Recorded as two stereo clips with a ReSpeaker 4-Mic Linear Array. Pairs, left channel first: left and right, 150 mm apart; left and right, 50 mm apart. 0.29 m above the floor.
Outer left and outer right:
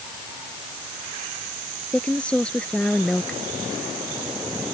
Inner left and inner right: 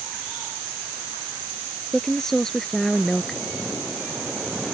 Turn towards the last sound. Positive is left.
turn(degrees=5)  # may be behind; listen again after turning